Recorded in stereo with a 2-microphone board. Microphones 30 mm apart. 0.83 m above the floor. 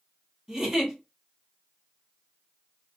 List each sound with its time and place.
0.5 s a giggle: 15° right (ahead or behind), 1.2 m